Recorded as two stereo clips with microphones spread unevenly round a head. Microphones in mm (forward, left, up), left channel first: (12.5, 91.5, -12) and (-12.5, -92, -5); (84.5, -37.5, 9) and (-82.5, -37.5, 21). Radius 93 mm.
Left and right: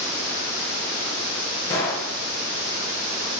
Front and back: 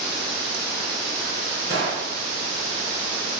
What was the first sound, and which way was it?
A gunshot, 155° left.